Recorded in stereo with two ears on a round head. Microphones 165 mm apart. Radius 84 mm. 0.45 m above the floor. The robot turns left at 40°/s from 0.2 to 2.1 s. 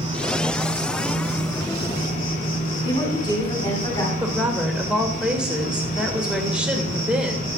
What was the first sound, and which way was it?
An insect, 150° right.